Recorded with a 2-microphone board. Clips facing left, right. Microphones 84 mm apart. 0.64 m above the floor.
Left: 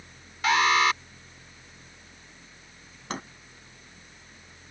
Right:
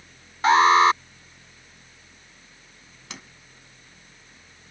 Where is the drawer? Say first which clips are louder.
Left 9 dB; 45° left (ahead or behind).